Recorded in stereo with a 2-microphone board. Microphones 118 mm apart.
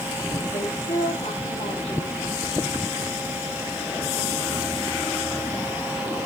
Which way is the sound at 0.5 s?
55° left (ahead or behind).